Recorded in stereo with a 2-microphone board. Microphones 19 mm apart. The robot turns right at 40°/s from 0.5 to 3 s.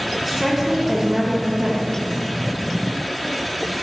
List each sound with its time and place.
0.2 s a woman speaking: 175° right, 0.5 m; by 2.0 s 115° right, 0.5 m